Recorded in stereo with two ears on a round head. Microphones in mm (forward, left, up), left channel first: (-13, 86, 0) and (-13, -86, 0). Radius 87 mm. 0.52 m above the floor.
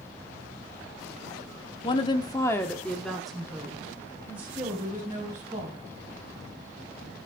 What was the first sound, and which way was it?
A woman speaking, 25° left (ahead or behind).